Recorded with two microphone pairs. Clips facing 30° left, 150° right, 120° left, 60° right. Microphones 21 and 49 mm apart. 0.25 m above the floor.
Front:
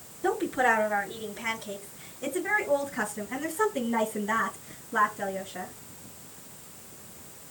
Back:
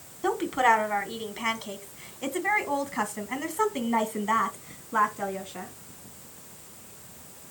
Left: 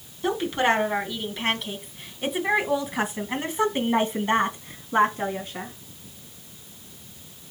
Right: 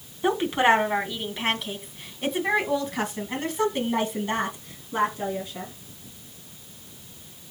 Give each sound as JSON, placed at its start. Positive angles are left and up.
{"t": 0.2, "sound": "a woman speaking", "azimuth_deg": -125, "distance_m": 2.5}